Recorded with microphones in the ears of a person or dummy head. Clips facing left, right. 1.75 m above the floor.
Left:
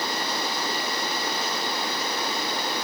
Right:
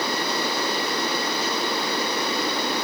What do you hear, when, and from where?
Only background noise.